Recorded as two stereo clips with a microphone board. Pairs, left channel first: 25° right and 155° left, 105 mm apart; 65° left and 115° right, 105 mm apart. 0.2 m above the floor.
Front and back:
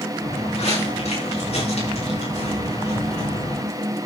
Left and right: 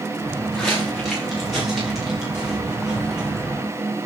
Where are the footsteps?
20° right, 9 m; by 3.7 s 30° right, 7.5 m.